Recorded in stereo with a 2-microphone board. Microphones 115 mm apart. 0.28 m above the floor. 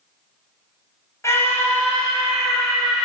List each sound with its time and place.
1.2 s a scream: 25° left (ahead or behind), 1.9 m; by 3.0 s 5° right (ahead or behind), 2.5 m